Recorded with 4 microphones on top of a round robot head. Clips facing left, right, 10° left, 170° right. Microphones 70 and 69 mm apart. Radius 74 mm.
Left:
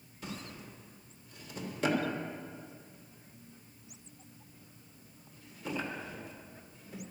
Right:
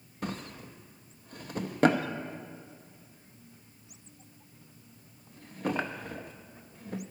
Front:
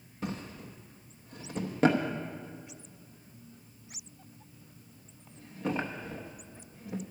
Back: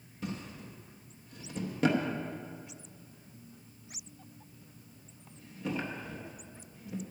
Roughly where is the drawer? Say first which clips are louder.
Right 6 dB, front 2 dB; ahead right.